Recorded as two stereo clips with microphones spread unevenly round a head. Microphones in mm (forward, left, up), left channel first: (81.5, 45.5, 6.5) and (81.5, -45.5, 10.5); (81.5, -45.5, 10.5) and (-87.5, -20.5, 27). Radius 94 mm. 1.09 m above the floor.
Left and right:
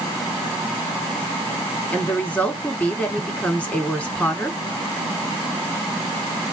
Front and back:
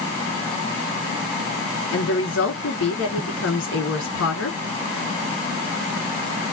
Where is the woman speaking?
15° left, 2 m.